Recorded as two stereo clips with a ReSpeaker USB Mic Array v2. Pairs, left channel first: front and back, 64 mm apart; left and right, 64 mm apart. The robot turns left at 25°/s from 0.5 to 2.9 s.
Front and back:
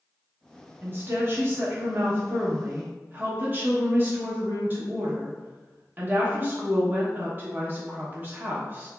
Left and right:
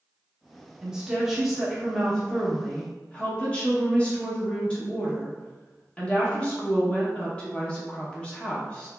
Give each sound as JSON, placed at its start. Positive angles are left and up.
{"t": 0.8, "sound": "a woman speaking", "azimuth_deg": -160, "distance_m": 0.7}